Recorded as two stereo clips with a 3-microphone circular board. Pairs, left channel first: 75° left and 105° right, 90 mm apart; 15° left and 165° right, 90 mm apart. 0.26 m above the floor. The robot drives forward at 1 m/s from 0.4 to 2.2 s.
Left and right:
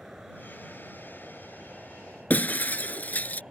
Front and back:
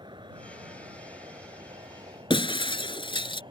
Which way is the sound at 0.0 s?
170° left.